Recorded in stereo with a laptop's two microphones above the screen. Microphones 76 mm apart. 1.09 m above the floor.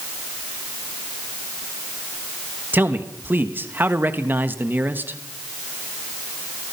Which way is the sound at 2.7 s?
25° right (ahead or behind).